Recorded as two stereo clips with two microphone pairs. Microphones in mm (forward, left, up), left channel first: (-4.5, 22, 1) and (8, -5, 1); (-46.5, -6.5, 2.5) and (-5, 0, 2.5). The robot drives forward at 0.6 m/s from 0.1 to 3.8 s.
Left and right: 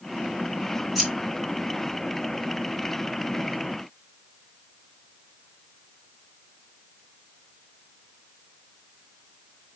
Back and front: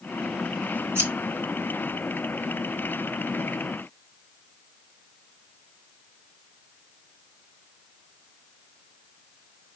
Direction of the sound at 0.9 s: 20° left.